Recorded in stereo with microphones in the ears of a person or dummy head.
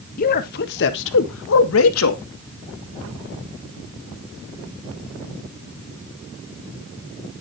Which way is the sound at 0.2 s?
40° left (ahead or behind).